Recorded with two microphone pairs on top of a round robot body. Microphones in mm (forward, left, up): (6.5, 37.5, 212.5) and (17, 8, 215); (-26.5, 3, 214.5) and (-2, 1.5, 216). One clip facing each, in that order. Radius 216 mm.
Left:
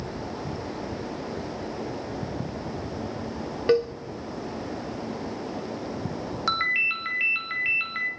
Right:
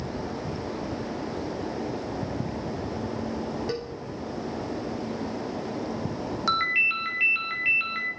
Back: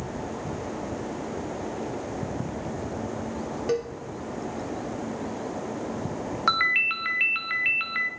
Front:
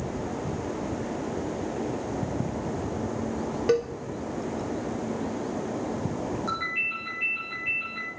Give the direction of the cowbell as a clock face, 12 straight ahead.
10 o'clock.